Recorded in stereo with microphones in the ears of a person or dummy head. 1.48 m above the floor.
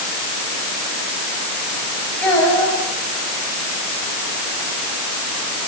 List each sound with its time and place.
2.2 s a child speaking: 5° left (ahead or behind), 8 m